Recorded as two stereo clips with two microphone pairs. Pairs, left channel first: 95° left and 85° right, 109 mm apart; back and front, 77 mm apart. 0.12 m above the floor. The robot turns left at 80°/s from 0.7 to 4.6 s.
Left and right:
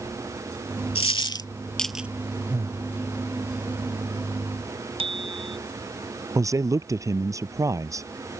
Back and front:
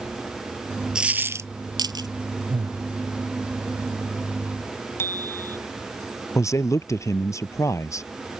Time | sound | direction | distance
0.9 | a dropped coin | 80° left | ?
2.5 | breathing | 15° right | ?
5.0 | a bicycle bell | 120° right | ?
6.3 | a man speaking | 140° right | ?